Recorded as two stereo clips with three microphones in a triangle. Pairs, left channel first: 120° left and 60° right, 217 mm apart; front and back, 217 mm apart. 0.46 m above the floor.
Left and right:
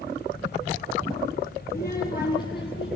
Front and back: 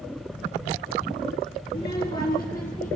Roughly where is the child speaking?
Ahead left.